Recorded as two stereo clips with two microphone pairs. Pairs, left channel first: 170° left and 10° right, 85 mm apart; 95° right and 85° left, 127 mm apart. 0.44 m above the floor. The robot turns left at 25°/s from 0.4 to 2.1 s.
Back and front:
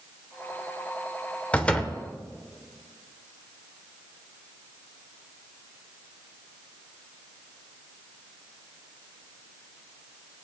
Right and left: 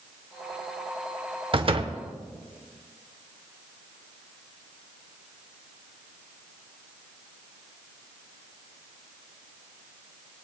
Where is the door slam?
105° left, 0.9 m; by 2.0 s 95° left, 0.9 m.